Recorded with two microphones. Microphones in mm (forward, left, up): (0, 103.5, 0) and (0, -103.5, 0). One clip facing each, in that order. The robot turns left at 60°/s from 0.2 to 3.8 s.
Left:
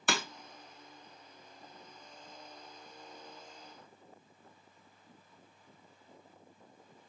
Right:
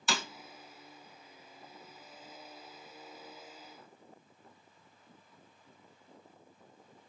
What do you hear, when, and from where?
0.1 s breaking glass: 55° left (ahead or behind), 0.6 m